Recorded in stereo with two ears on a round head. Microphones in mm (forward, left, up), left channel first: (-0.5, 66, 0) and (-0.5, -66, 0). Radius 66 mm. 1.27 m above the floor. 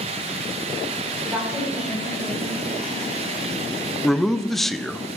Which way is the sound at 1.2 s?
10° right (ahead or behind).